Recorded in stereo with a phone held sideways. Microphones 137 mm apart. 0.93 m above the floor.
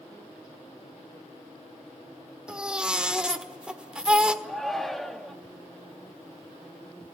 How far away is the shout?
About 2 m.